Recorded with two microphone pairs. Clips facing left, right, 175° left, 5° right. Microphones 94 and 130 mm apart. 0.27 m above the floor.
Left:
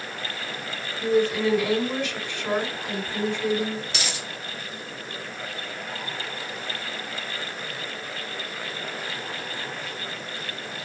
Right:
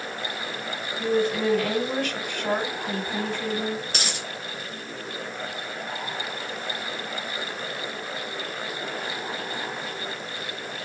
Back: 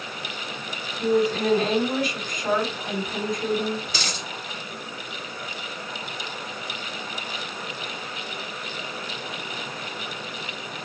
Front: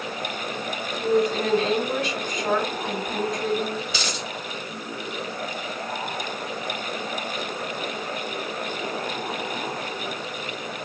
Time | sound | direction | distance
1.0 | a woman speaking | 95° right | 2.0 m
3.9 | a dropped coin | 135° right | 1.2 m